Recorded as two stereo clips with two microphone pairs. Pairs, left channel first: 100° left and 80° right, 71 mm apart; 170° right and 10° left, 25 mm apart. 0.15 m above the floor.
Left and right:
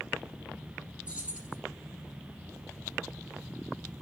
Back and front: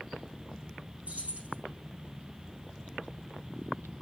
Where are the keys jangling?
10° right, 2.5 m.